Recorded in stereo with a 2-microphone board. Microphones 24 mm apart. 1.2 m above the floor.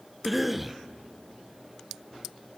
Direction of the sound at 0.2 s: 5° right (ahead or behind).